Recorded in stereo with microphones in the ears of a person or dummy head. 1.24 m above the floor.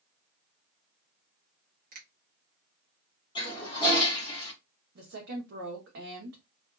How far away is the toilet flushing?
About 1.0 m.